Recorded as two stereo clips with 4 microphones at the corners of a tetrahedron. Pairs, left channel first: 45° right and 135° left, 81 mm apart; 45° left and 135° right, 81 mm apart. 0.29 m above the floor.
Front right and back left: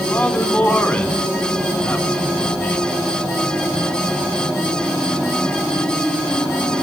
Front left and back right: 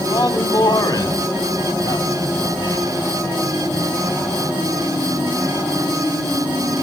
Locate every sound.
0.1 s a man speaking: 20° left, 3 m